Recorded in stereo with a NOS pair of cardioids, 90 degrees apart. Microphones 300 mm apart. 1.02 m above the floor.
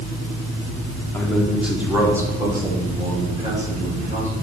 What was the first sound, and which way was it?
A man speaking, 5° left.